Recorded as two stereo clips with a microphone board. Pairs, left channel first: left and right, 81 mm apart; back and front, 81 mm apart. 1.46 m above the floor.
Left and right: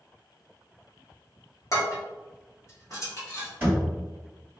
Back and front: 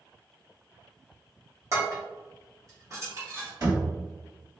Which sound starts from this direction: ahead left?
Dishes clattering, at 1.7 s.